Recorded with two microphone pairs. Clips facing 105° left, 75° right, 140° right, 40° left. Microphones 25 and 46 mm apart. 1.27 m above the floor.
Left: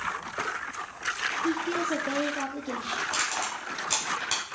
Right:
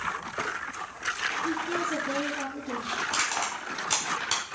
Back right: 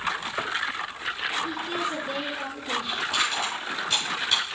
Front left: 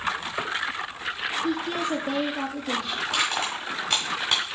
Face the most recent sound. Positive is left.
turn(degrees=10)